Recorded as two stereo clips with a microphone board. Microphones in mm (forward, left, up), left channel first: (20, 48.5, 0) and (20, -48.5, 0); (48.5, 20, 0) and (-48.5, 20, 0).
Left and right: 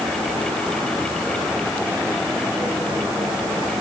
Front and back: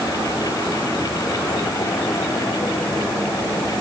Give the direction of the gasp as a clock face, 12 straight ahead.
I don't hear a gasp.